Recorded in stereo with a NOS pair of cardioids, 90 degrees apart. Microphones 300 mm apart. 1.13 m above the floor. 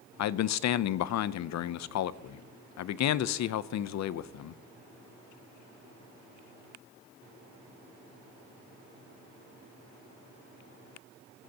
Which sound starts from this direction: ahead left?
A man speaking, at 0.2 s.